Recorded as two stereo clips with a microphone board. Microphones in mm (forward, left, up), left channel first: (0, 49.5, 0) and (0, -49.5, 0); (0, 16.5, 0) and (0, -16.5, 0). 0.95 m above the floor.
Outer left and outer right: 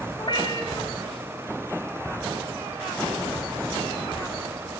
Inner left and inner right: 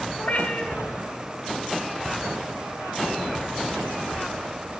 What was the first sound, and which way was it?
A cat meowing, 60° left (ahead or behind).